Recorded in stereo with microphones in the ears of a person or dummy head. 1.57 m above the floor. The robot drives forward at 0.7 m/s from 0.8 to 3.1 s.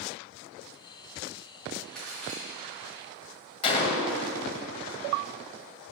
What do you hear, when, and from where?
1.9 s a crack: centre (ahead or behind), 2 m
3.6 s a gunshot: 30° left (ahead or behind), 0.7 m